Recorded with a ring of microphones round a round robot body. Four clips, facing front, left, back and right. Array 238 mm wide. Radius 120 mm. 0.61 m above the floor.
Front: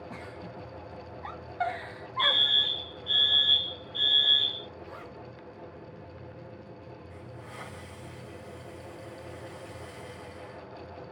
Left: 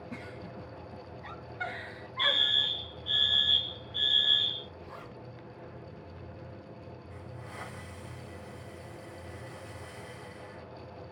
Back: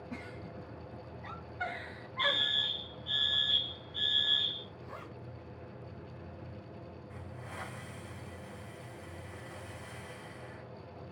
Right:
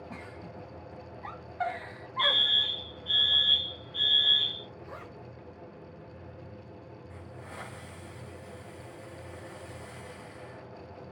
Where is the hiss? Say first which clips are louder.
Right 1 dB, front 2 dB; 100° right, 1.9 m.